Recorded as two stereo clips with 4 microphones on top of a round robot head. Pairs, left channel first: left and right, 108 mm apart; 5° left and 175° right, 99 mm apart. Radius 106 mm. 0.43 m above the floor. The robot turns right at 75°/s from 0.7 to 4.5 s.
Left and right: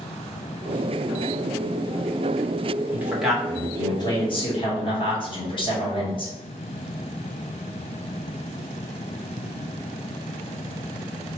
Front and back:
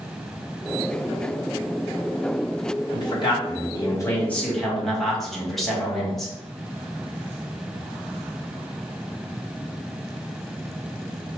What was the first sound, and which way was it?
A man speaking, 30° right.